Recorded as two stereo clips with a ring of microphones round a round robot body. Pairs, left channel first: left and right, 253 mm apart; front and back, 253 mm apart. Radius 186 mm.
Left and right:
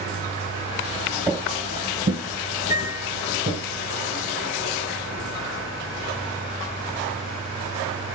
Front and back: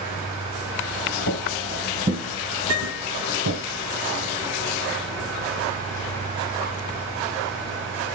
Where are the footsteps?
15° right, 1.1 m; by 3.6 s 160° right, 2 m.